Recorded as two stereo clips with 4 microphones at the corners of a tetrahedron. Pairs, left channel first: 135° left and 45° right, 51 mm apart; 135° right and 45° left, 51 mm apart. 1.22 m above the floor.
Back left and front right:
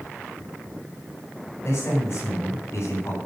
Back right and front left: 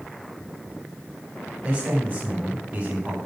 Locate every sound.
1.6 s a man speaking: 90° left, 6.5 m; by 3.2 s 95° left, 7.5 m